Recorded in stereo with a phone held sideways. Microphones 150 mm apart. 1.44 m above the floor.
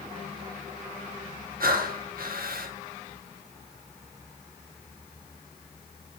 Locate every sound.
1.6 s breathing: 75° right (ahead or behind), 1.8 m